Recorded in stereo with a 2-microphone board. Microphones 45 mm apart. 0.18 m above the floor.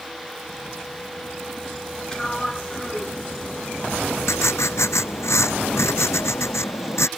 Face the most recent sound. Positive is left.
turn(degrees=75)  # may be behind; listen again after turning